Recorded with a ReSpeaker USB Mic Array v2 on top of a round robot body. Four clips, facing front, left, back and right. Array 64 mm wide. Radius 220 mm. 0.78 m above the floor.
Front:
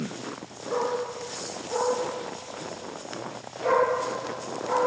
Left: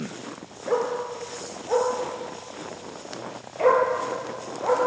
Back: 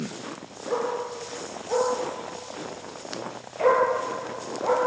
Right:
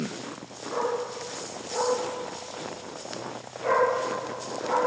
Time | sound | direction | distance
0.7 | a dog barking | 100° left | 5.5 m